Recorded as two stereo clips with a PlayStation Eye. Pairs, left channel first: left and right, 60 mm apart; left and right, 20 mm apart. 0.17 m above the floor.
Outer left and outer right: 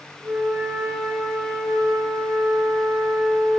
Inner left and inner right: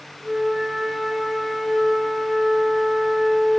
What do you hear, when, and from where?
0.2 s a flute: 5° right (ahead or behind), 2 m